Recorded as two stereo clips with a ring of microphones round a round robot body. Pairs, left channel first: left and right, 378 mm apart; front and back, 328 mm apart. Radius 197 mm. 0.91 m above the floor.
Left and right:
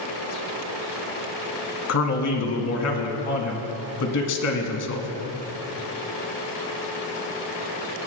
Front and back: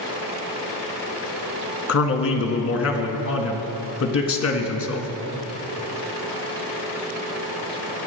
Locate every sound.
1.9 s a man speaking: 45° left, 1.7 m